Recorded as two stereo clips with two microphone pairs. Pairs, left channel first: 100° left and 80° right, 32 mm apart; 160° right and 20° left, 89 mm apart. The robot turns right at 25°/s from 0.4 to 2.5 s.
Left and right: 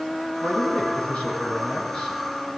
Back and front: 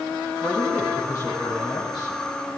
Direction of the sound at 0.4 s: 130° left.